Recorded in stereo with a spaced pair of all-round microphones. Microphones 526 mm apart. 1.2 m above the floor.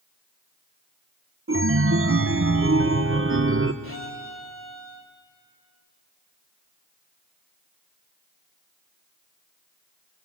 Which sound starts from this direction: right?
A chime, at 1.5 s.